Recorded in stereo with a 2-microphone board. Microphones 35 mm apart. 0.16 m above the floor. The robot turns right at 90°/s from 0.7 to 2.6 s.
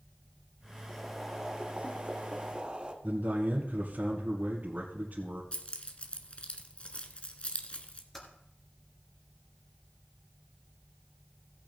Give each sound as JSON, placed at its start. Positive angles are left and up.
{"t": 0.9, "sound": "boiling", "azimuth_deg": 160, "distance_m": 1.2}
{"t": 3.0, "sound": "a man speaking", "side_deg": -50, "distance_m": 2.5}
{"t": 5.5, "sound": "keys jangling", "side_deg": 35, "distance_m": 1.1}
{"t": 8.1, "sound": "typing on a keyboard", "side_deg": 10, "distance_m": 3.0}